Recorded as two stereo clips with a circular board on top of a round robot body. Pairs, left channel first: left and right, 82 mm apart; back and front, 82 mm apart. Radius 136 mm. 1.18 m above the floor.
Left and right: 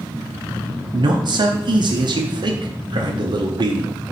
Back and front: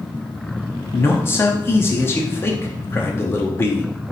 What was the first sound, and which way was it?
A man speaking, 120° right.